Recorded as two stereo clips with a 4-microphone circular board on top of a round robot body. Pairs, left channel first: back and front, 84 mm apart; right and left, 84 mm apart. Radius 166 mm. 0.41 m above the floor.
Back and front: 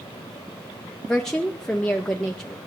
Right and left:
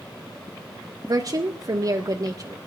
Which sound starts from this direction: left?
A woman speaking, at 1.1 s.